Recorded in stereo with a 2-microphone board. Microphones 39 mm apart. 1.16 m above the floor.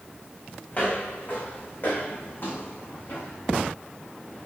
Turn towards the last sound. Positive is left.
turn(degrees=65)  # may be behind; listen again after turning